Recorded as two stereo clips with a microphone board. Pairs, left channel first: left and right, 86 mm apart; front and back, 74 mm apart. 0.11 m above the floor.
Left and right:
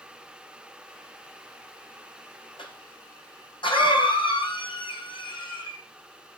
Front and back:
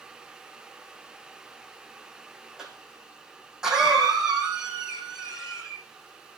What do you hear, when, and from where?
2.6 s a cough: 100° left, 5.5 m